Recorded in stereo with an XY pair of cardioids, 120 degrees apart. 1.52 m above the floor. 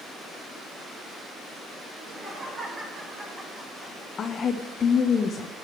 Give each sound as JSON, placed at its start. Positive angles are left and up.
{"t": 1.9, "sound": "laughter", "azimuth_deg": -30, "distance_m": 5.5}
{"t": 4.2, "sound": "a woman speaking", "azimuth_deg": 40, "distance_m": 0.9}